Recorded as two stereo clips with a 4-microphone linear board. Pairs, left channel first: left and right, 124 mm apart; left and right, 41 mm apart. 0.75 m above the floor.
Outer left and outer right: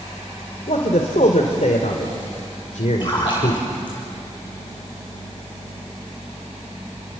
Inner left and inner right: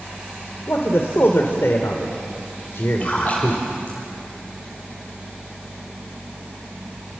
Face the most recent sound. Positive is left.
turn(degrees=40)  # may be behind; listen again after turning